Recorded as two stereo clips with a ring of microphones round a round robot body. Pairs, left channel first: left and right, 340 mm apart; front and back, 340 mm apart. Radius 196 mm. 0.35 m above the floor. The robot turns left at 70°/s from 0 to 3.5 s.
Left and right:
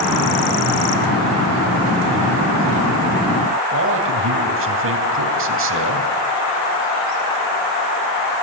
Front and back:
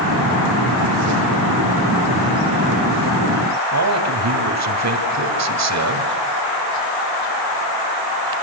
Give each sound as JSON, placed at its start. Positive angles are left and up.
{"t": 3.7, "sound": "a man speaking", "azimuth_deg": -145, "distance_m": 3.5}